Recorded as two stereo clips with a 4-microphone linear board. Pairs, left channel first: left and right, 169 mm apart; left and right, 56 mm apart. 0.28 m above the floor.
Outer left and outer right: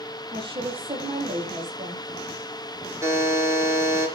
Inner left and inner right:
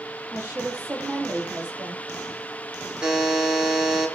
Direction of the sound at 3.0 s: 15° right (ahead or behind).